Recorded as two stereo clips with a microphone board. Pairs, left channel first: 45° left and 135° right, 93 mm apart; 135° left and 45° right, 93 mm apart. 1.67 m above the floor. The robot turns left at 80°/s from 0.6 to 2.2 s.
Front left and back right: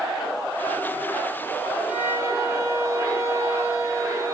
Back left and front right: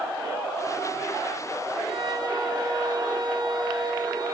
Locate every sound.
1.9 s a violin: 60° right, 3 m; by 4.3 s 85° right, 3 m